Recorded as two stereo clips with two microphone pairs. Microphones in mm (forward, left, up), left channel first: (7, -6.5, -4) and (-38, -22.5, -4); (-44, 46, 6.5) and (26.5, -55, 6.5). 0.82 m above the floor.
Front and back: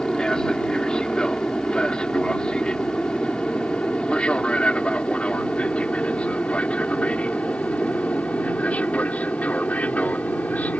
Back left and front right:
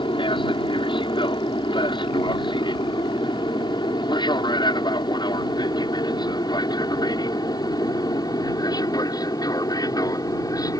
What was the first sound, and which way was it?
An aircraft, 90° left.